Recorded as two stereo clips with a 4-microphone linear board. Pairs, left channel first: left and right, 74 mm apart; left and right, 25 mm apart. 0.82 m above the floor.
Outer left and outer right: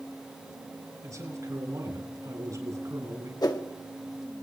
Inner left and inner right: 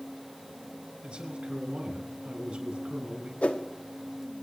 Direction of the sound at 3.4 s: 60° left (ahead or behind).